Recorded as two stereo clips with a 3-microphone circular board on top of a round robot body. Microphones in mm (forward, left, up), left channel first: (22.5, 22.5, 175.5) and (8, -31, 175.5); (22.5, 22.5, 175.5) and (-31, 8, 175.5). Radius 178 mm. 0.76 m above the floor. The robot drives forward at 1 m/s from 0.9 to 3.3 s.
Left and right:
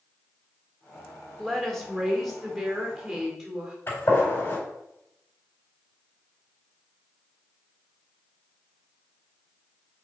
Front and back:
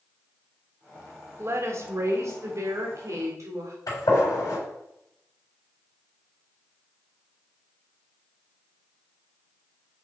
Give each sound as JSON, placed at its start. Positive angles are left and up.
{"t": 1.4, "sound": "a woman speaking", "azimuth_deg": 155, "distance_m": 1.9}
{"t": 3.9, "sound": "a gunshot", "azimuth_deg": 25, "distance_m": 4.0}